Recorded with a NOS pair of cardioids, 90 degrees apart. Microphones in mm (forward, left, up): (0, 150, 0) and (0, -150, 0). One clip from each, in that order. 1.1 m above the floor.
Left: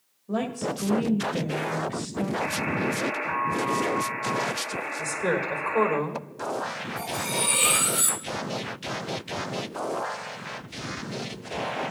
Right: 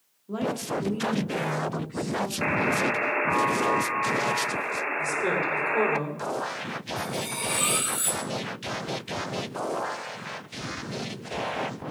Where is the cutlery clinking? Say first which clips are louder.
Left 4 dB; 15° left, 2 m.